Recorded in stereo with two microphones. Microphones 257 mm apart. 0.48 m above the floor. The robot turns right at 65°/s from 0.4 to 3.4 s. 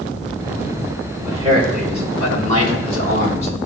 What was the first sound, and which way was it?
A man speaking, 165° right.